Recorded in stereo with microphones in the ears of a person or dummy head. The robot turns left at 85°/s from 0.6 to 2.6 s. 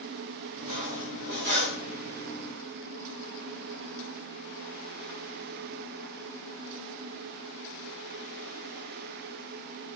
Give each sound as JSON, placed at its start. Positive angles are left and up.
{"t": 0.6, "sound": "cutlery clinking", "azimuth_deg": -40, "distance_m": 1.6}